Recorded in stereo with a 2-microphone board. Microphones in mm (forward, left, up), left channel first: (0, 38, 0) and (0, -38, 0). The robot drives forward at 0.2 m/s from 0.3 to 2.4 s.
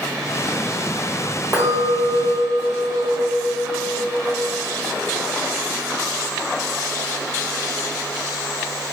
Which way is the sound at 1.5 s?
55° right (ahead or behind).